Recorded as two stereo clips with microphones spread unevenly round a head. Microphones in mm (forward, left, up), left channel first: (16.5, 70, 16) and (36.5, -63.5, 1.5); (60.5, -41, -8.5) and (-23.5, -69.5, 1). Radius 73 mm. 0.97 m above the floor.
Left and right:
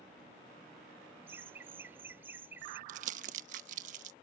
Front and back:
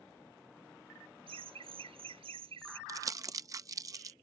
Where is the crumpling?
110° right.